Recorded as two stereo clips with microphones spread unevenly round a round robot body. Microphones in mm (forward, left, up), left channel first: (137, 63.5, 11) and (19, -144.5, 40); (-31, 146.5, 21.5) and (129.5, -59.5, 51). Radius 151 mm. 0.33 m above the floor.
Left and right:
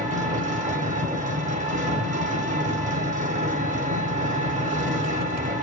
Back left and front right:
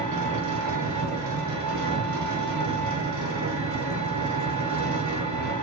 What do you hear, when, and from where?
0.0 s an engine running: 60° right, 0.8 m